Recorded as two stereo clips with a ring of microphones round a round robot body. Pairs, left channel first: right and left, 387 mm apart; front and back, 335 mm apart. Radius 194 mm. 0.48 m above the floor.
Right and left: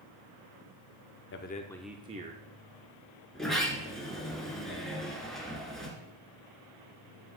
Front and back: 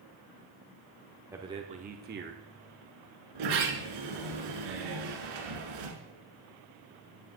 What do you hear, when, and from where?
1.3 s a man speaking: 105° right, 0.7 m; by 2.4 s 140° left, 0.9 m
3.4 s a sliding door: straight behind, 2 m